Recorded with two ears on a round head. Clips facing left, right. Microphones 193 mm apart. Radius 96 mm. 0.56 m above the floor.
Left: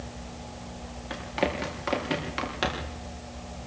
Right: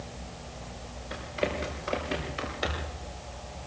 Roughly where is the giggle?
I don't hear a giggle.